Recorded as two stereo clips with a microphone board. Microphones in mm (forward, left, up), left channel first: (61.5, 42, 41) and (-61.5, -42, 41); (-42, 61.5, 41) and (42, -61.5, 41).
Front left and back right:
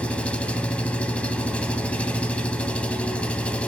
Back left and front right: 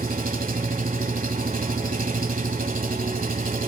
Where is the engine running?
45° right, 1.2 m.